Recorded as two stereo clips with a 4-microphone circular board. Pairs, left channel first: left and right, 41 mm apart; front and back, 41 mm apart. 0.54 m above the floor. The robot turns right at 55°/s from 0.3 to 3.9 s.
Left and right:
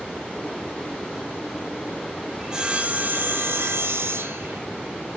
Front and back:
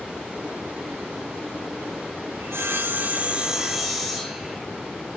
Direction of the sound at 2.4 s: 170° right.